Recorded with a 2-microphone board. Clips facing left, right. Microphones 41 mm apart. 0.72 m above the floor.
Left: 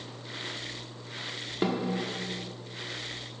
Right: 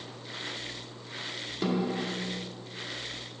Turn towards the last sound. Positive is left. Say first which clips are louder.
# even
turn(degrees=25)  # may be behind; listen again after turning